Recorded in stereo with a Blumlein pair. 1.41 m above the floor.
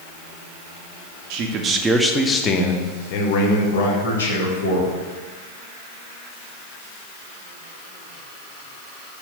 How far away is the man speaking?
About 0.6 m.